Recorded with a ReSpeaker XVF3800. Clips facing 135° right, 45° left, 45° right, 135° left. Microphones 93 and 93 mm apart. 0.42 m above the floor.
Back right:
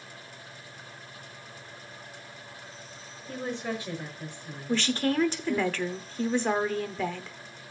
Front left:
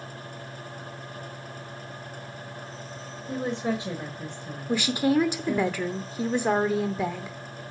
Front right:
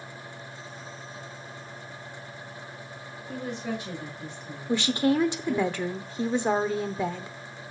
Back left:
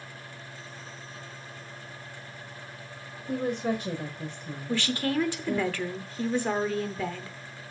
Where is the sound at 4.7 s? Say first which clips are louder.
Front left 4 dB, front right 5 dB; 15° right, 0.7 m.